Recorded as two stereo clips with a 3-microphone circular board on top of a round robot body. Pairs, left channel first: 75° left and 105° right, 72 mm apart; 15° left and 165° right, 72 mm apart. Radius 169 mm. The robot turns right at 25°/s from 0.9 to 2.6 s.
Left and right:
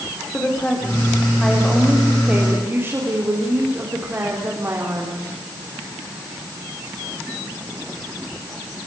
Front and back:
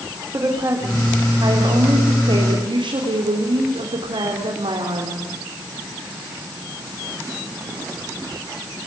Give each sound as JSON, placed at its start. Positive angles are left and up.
{"t": 0.3, "sound": "a woman speaking", "azimuth_deg": 145, "distance_m": 3.5}